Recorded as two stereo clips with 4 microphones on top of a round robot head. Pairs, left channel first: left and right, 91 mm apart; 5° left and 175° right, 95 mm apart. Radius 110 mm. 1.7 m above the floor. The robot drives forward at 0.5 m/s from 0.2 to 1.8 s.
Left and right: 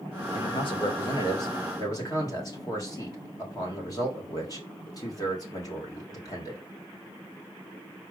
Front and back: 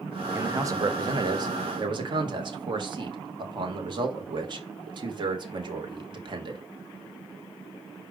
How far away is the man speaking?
About 1.0 m.